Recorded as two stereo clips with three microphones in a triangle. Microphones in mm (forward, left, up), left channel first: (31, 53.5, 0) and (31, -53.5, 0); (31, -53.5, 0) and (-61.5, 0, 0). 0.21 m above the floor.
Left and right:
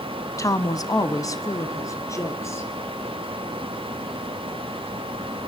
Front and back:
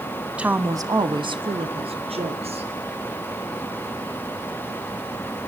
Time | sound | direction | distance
0.4 | a woman speaking | 80° left | 1.2 m